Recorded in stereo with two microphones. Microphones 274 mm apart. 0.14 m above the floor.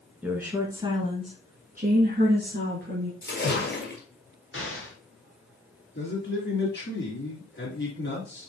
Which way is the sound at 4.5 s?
50° left (ahead or behind).